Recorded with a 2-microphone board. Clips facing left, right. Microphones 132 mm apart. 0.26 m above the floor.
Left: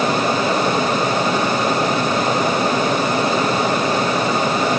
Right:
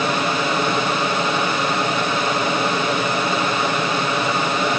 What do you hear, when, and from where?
Only background noise.